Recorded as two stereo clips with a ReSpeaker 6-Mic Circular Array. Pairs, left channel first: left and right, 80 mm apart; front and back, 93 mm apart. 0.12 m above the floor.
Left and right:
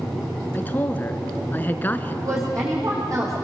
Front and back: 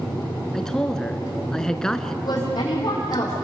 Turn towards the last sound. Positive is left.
turn(degrees=-40)